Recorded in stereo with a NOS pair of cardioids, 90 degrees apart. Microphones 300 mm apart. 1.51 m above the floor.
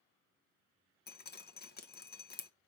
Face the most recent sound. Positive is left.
turn(degrees=30)